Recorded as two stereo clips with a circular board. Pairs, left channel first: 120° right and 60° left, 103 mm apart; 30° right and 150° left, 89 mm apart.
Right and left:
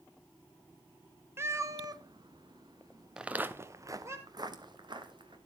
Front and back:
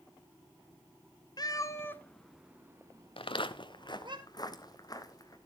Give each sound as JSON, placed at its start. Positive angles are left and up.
{"t": 1.4, "sound": "a cat meowing", "azimuth_deg": 0, "distance_m": 1.2}
{"t": 3.2, "sound": "footsteps", "azimuth_deg": -25, "distance_m": 0.9}